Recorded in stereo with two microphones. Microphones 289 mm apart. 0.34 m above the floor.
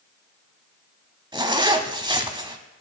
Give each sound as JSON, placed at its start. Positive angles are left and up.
{"t": 1.3, "sound": "a zipper", "side_deg": -15, "distance_m": 0.9}